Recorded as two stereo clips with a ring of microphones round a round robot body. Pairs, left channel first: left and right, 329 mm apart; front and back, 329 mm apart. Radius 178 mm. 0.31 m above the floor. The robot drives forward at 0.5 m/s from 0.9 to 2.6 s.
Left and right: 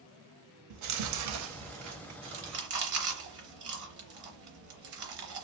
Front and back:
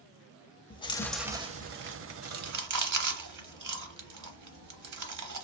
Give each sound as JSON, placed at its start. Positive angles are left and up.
{"t": 0.7, "sound": "chewing", "azimuth_deg": -75, "distance_m": 0.6}